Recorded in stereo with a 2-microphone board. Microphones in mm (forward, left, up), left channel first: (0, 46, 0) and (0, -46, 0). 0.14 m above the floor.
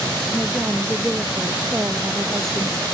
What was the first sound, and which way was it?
A woman speaking, 10° right (ahead or behind).